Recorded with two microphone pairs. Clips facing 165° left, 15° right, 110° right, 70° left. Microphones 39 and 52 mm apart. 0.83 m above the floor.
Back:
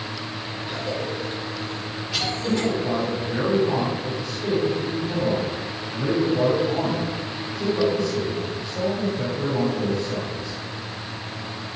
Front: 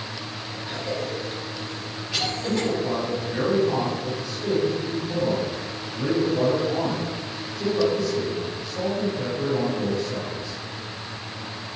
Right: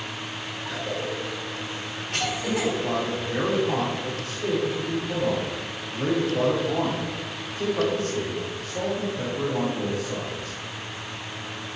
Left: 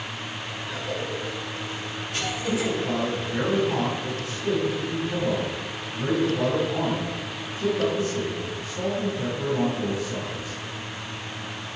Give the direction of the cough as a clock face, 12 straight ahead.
3 o'clock.